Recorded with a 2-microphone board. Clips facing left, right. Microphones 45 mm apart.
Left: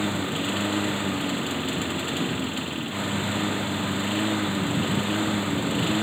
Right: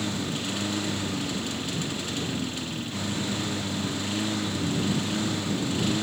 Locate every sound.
0.0 s a lawn mower: 25° left (ahead or behind)